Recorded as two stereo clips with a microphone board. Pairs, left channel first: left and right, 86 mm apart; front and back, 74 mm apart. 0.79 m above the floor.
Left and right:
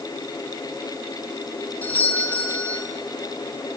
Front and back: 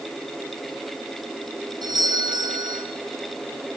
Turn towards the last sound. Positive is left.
turn(degrees=160)